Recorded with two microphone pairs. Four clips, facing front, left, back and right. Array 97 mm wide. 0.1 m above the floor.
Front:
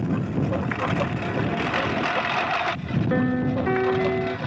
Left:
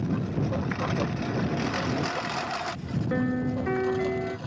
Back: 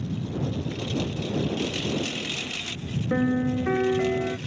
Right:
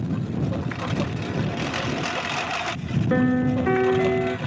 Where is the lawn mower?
5° left; by 4.5 s 20° right.